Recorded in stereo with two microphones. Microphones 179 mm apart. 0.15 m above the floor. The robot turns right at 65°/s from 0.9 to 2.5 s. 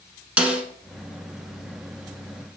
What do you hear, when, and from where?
0.4 s a snare drum: 5° right (ahead or behind), 1.1 m